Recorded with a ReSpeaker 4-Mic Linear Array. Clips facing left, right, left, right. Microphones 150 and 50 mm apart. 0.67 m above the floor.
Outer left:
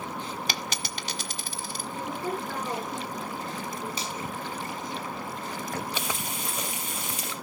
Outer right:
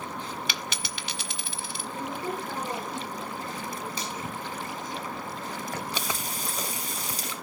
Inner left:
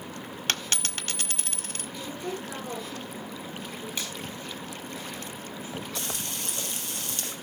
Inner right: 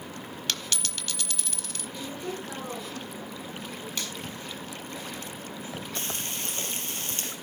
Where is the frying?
35° right (ahead or behind), 3.5 m.